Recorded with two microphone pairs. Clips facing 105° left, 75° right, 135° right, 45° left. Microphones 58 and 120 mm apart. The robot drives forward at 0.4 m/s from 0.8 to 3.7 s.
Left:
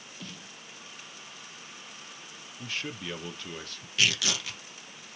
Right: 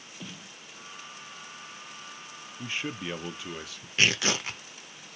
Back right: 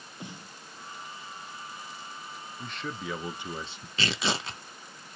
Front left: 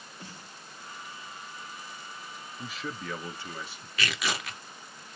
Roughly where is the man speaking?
Ahead right.